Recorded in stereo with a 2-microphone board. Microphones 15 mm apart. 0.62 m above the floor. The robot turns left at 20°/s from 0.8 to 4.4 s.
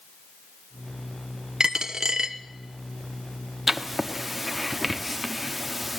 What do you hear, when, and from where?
1.6 s a dropped coin: 55° right (ahead or behind), 0.9 m
3.7 s writing: 15° right (ahead or behind), 1.1 m; by 6.0 s 10° right (ahead or behind), 1.1 m